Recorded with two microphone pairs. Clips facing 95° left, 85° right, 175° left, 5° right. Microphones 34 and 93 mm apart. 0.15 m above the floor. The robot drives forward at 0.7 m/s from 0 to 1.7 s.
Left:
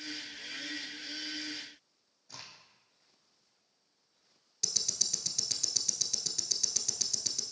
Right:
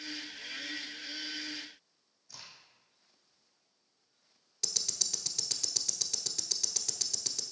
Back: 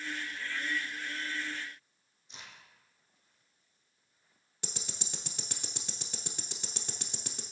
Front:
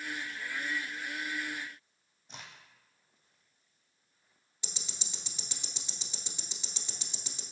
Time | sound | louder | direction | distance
2.3 | a crack | left 2 dB, front 2 dB | 45° left | 1.8 m
4.6 | ticking | even, back 4 dB | 170° right | 0.9 m